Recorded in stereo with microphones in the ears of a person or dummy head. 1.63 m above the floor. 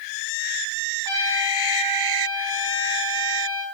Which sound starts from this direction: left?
A trumpet, at 1.1 s.